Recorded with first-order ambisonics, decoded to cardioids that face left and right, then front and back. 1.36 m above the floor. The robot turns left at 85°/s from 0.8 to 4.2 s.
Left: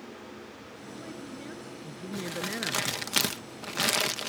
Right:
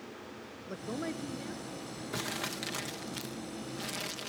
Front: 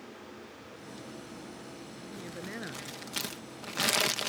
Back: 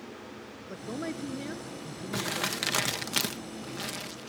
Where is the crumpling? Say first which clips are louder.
Left 3 dB, back 11 dB; 160° right; by 4.3 s 25° left.